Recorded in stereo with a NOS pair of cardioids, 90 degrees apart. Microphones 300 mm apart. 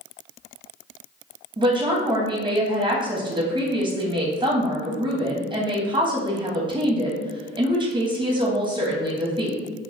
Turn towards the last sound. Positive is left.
turn(degrees=-15)